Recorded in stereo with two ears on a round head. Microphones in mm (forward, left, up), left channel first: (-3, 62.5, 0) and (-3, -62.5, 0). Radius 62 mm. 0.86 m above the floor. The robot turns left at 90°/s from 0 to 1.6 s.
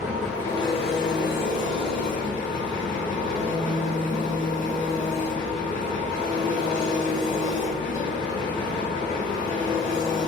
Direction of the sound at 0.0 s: 160° right.